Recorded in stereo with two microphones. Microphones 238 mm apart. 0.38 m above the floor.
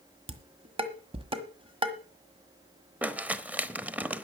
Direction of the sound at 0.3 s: 25° right (ahead or behind).